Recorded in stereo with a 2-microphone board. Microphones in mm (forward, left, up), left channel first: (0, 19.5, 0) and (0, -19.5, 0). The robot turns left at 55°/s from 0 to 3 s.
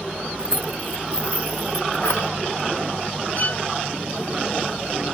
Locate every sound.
0.4 s keys jangling: 20° right (ahead or behind); by 2.3 s 85° left
3.4 s a violin: 40° left (ahead or behind)